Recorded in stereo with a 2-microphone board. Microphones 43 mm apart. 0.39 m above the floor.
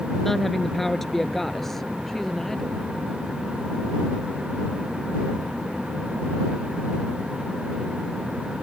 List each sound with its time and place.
0.2 s a woman speaking: 5° left (ahead or behind); by 2.8 s 10° left (ahead or behind)